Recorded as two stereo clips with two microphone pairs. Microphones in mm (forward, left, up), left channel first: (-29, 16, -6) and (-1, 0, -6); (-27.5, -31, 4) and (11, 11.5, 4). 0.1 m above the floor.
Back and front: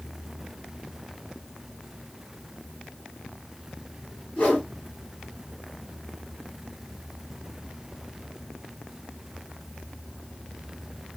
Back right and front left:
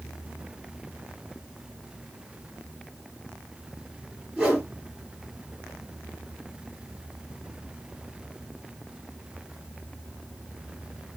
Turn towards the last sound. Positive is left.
turn(degrees=115)